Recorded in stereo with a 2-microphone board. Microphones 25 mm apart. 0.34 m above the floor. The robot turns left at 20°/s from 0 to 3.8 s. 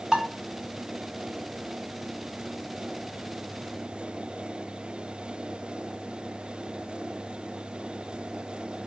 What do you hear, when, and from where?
0.1 s dishes clattering: 30° right (ahead or behind), 1.0 m; by 0.3 s 25° right (ahead or behind), 1.0 m